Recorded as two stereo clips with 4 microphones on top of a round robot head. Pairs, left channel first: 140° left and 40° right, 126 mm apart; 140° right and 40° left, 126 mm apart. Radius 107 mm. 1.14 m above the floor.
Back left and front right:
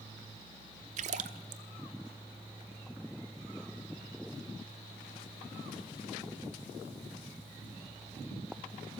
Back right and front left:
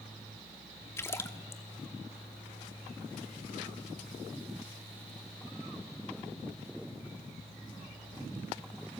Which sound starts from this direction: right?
A splash, at 1.0 s.